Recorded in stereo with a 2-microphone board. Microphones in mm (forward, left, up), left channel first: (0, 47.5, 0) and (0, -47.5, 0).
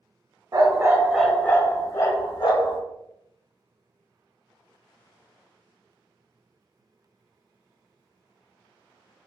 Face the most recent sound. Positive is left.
turn(degrees=50)  # may be behind; listen again after turning